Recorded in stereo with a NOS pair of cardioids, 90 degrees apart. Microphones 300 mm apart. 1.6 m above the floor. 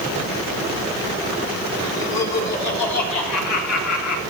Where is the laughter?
55° left, 4.5 m; by 4.2 s 75° left, 3.5 m.